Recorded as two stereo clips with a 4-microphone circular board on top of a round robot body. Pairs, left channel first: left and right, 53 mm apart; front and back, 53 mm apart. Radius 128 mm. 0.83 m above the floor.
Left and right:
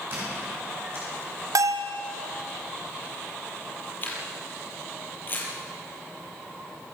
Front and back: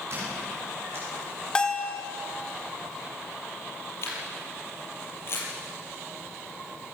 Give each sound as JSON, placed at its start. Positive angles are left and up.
{"t": 0.1, "sound": "a squeak", "azimuth_deg": -140, "distance_m": 9.0}
{"t": 1.6, "sound": "a bell", "azimuth_deg": -75, "distance_m": 1.0}
{"t": 4.0, "sound": "a camera shutter", "azimuth_deg": 40, "distance_m": 5.5}